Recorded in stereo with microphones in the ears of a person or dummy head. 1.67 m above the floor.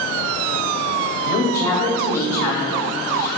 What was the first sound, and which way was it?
A woman speaking, 20° left (ahead or behind).